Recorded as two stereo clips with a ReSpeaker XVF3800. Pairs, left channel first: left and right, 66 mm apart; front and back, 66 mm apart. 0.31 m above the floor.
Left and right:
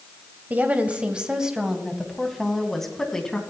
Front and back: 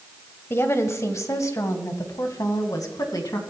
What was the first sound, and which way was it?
A woman speaking, 35° right.